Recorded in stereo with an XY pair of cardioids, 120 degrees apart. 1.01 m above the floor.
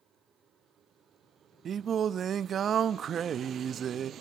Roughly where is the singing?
Ahead right.